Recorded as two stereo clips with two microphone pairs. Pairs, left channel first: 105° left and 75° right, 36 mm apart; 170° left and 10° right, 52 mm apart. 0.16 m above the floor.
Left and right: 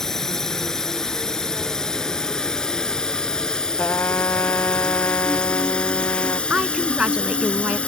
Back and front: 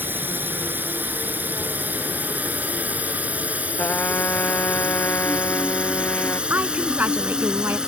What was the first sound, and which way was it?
A drone, 30° left.